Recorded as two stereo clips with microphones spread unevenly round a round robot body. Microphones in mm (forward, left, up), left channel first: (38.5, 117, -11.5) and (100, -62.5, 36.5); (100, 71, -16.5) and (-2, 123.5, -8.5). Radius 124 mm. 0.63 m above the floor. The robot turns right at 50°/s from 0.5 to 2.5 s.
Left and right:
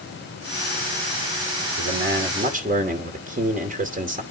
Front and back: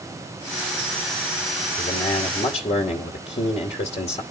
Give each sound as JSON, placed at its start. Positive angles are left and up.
{"t": 1.8, "sound": "a man speaking", "azimuth_deg": -55, "distance_m": 2.5}